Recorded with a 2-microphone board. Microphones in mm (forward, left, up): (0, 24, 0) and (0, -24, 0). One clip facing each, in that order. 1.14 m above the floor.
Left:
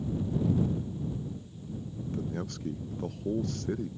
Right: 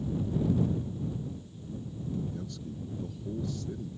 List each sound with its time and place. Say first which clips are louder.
2.0 s a man speaking: left 2 dB; 65° left (ahead or behind)